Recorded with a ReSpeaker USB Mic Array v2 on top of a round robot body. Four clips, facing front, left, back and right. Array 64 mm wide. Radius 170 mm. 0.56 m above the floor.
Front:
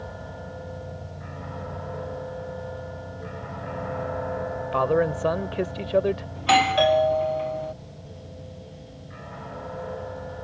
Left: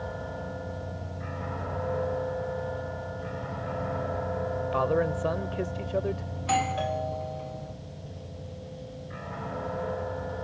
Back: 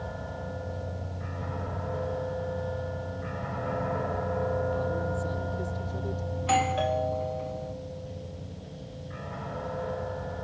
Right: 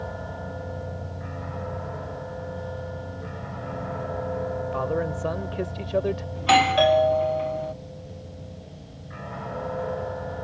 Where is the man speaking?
10° left; by 6.2 s 20° right.